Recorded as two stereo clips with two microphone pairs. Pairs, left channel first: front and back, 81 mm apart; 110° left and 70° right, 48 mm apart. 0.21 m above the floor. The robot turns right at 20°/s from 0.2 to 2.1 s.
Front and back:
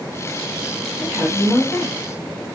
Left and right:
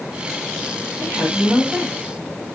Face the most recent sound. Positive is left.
turn(degrees=-30)